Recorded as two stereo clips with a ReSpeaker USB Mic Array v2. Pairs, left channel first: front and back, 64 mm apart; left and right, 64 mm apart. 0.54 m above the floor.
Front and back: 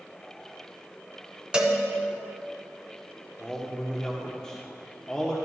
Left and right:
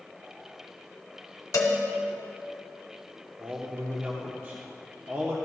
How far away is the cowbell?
About 1.1 m.